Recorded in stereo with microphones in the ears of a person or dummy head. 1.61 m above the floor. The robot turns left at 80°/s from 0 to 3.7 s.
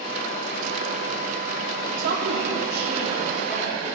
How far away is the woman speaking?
About 3 m.